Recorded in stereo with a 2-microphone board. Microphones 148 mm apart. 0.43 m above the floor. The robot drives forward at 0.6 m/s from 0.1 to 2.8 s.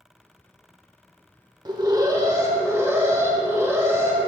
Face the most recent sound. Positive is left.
turn(degrees=-20)  # may be behind; listen again after turning